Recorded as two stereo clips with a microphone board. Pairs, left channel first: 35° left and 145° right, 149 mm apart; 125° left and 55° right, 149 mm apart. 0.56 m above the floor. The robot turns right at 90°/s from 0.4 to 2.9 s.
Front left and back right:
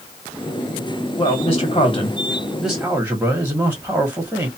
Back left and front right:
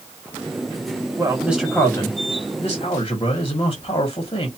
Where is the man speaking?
10° right, 1.2 m; by 4.5 s 145° left, 1.2 m.